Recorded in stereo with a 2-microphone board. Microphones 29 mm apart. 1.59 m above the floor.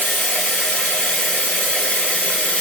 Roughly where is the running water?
Left.